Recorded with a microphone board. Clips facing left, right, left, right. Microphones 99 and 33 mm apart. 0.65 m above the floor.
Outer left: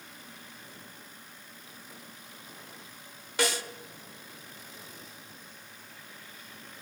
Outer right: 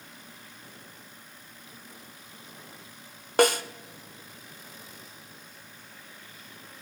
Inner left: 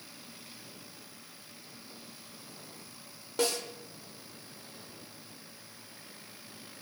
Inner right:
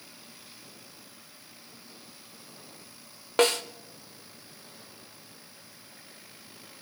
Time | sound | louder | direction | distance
3.4 | a snare drum | outer right 9 dB, inner right 7 dB | 50° right (ahead or behind) | 0.9 m